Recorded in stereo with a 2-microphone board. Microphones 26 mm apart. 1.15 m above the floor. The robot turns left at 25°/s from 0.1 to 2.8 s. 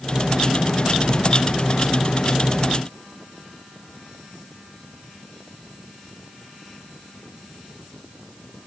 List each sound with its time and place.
Only background noise.